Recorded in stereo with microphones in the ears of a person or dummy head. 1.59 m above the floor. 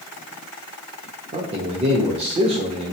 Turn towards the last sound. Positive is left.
turn(degrees=-30)  # may be behind; listen again after turning